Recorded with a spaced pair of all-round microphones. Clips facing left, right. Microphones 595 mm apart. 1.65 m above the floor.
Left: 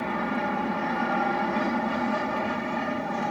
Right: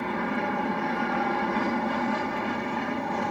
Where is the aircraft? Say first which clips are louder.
Even; 5° left (ahead or behind).